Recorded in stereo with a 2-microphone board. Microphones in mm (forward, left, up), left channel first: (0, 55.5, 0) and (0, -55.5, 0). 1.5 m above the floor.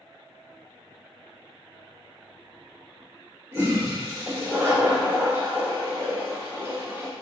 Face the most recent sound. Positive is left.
turn(degrees=-25)  # may be behind; listen again after turning